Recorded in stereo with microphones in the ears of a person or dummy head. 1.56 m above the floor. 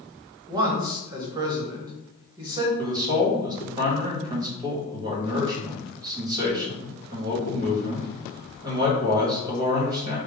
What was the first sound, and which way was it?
A man speaking, 20° right (ahead or behind).